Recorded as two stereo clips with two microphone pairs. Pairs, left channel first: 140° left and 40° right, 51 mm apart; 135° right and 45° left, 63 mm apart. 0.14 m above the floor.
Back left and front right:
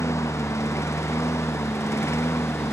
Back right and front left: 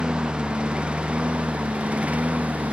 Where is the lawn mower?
120° left; by 2.7 s 115° left.